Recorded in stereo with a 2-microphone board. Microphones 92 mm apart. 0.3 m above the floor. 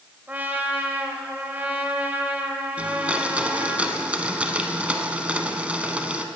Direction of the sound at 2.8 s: 15° right (ahead or behind).